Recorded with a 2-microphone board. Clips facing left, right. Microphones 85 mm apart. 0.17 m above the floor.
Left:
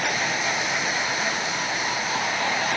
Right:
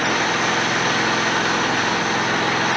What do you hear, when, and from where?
0.0 s an engine running: 80° right